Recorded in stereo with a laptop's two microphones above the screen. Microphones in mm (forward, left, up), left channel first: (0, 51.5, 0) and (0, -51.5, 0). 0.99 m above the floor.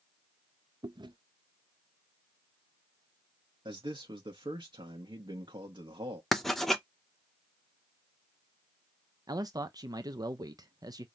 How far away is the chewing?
About 0.7 m.